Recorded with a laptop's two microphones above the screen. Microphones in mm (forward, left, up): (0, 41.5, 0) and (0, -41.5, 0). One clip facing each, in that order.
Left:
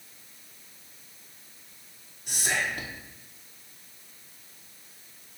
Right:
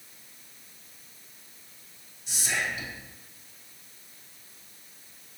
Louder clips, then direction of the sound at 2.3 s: Left 2 dB; 55° left (ahead or behind).